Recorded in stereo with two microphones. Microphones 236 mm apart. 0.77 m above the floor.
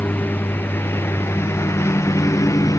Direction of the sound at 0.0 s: 10° left (ahead or behind).